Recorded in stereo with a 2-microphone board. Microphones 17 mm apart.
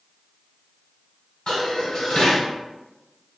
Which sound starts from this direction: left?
Dishes clattering, at 1.5 s.